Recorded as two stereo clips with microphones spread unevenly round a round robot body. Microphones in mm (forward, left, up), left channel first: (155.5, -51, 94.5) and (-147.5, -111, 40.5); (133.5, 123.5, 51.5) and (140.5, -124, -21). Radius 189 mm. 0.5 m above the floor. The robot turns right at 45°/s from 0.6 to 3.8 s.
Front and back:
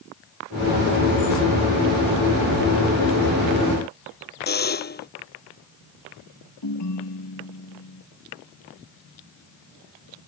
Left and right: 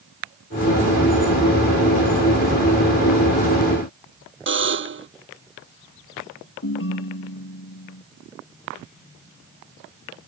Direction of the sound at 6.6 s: 60° left.